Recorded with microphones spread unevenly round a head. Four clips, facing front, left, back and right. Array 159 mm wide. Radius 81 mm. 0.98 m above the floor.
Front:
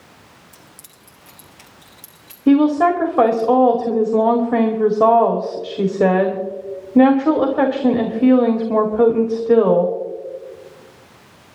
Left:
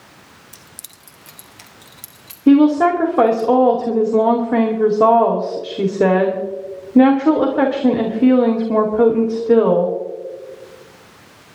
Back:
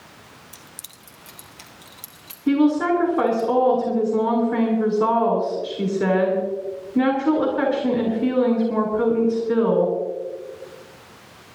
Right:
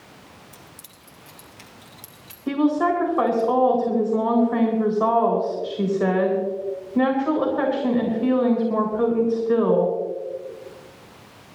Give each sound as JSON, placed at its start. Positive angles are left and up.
{"t": 0.5, "sound": "keys jangling", "azimuth_deg": 135, "distance_m": 0.9}
{"t": 2.5, "sound": "a woman speaking", "azimuth_deg": 50, "distance_m": 2.0}